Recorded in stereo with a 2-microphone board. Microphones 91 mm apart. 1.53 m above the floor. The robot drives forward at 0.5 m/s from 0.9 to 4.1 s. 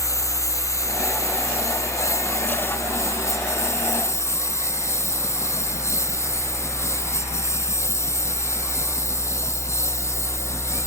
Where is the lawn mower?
35° left (ahead or behind); by 10.9 s 30° left (ahead or behind).